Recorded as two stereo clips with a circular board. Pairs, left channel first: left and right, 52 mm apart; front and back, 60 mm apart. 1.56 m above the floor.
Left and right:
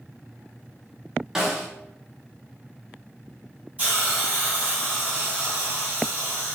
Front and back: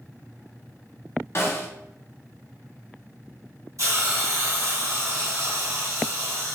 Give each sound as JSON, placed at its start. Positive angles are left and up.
{"t": 1.4, "sound": "a snare drum", "azimuth_deg": -10, "distance_m": 0.9}
{"t": 3.8, "sound": "a hiss", "azimuth_deg": -155, "distance_m": 1.7}